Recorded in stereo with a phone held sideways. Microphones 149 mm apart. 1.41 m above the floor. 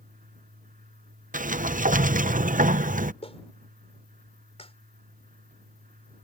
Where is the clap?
40° left (ahead or behind).